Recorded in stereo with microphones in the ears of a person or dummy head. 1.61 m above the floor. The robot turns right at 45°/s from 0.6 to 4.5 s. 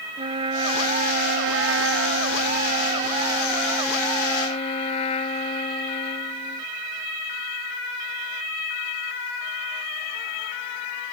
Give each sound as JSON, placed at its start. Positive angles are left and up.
{"t": 0.2, "sound": "a trumpet", "azimuth_deg": -145}